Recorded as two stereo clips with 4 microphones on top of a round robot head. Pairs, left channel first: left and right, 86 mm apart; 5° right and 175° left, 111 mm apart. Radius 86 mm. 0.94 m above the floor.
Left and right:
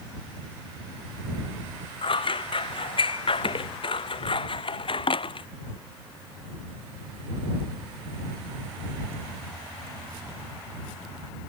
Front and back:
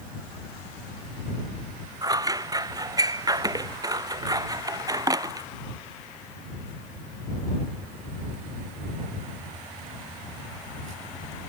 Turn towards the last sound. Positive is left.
turn(degrees=115)